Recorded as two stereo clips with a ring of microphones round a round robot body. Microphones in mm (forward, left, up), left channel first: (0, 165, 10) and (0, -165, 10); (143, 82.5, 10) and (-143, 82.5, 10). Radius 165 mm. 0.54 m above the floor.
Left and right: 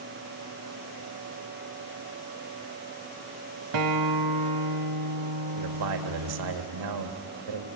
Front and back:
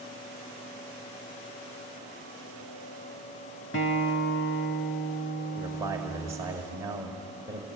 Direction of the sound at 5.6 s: 100° right.